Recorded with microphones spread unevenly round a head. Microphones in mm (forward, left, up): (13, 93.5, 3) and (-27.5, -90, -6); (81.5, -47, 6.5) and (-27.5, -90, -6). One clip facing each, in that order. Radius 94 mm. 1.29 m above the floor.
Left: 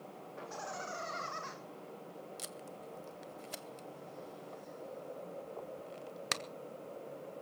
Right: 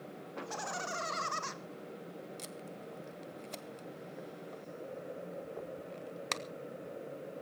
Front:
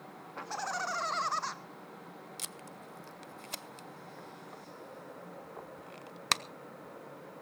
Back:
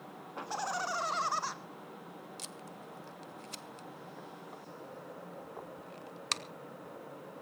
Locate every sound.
0.4 s laughter: 85° right, 2.5 m; by 1.6 s 75° right, 1.4 m
2.4 s tape being pulled: 5° right, 0.7 m